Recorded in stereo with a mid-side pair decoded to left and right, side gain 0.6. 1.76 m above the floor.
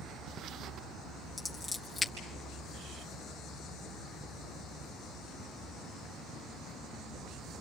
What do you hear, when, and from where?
1.4 s scissors: 20° left, 3.5 m